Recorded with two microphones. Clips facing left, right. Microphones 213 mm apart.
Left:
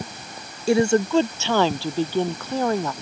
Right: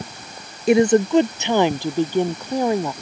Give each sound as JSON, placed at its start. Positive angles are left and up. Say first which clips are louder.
{"t": 0.7, "sound": "a woman speaking", "louder": "right 4 dB", "side_deg": -20}